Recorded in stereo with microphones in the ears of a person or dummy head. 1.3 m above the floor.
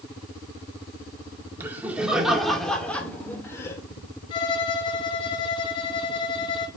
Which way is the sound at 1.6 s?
10° right (ahead or behind).